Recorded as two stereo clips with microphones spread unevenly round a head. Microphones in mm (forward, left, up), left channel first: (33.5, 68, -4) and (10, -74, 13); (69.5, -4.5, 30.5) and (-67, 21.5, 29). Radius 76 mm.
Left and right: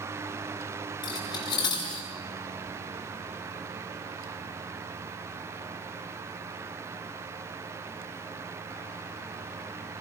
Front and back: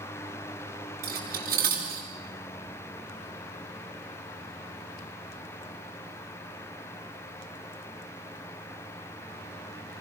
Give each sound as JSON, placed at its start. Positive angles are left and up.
{"t": 1.0, "sound": "cutlery clinking", "azimuth_deg": 145, "distance_m": 9.0}